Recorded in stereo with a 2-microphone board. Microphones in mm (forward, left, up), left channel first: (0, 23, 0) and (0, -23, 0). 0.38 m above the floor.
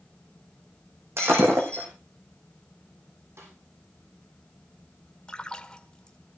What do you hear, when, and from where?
1.2 s breaking glass: 70° right (ahead or behind), 5.5 m
3.4 s a snare drum: 80° right, 9 m
5.3 s a splash: 20° left (ahead or behind), 1.2 m